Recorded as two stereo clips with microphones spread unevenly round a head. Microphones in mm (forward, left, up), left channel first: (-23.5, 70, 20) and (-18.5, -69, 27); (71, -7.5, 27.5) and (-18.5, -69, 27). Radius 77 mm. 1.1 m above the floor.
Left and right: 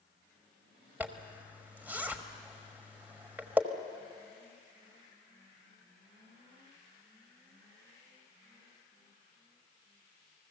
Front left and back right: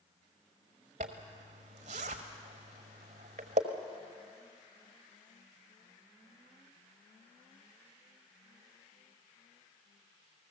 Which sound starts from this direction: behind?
A zipper, at 1.0 s.